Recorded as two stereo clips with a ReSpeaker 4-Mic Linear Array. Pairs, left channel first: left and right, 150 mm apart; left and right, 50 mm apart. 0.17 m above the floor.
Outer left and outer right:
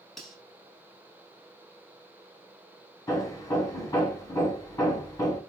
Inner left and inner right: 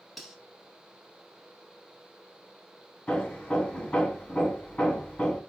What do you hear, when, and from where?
0.2 s cutlery clinking: centre (ahead or behind), 0.8 m
3.1 s hammering: 25° left (ahead or behind), 0.7 m